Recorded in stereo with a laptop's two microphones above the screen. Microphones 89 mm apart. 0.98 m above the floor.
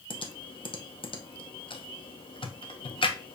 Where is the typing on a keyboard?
70° left (ahead or behind), 0.7 m.